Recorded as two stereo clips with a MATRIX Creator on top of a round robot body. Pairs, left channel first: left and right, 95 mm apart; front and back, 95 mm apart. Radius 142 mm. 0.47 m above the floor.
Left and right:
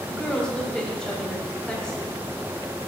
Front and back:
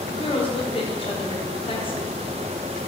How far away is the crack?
No crack in this recording.